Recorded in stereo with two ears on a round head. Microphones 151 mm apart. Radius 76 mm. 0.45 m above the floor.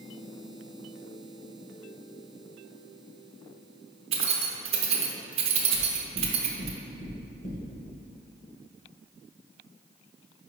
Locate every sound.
4.1 s keys jangling: 35° right (ahead or behind), 0.8 m
5.7 s knocking: 55° left (ahead or behind), 1.8 m